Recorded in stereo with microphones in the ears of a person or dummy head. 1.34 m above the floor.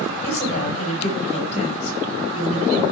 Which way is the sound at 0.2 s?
40° left (ahead or behind).